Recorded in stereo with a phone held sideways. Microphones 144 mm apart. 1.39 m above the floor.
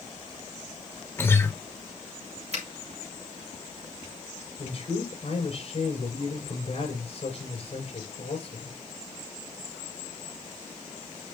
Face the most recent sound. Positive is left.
turn(degrees=50)  # may be behind; listen again after turning